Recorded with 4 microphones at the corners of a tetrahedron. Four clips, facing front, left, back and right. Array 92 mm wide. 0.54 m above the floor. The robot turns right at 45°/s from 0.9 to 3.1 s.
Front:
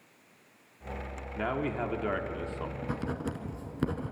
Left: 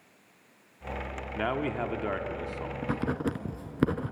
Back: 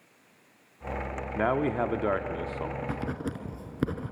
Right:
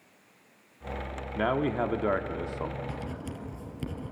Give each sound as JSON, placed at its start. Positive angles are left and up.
{"t": 1.4, "sound": "a man speaking", "azimuth_deg": -165, "distance_m": 1.0}
{"t": 2.8, "sound": "writing", "azimuth_deg": 85, "distance_m": 1.3}